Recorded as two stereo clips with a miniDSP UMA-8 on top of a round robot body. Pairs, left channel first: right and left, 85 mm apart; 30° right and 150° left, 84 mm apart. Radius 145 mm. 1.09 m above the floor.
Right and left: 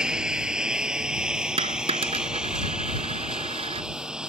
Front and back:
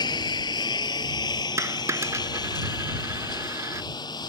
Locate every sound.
0.0 s a lawn mower: 10° left
1.6 s a dropped coin: 90° left